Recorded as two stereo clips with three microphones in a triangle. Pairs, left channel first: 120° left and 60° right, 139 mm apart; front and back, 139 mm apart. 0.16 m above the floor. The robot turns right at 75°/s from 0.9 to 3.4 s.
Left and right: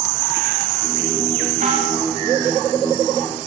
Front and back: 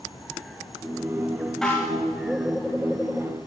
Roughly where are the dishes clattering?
Right.